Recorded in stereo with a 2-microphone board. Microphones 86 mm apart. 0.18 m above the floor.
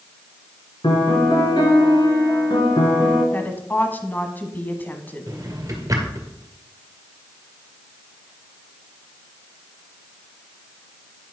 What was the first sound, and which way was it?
A piano, 55° left (ahead or behind).